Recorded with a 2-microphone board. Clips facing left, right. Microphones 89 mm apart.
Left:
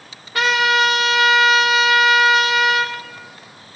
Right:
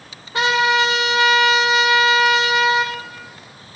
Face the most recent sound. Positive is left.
turn(degrees=-25)  # may be behind; listen again after turning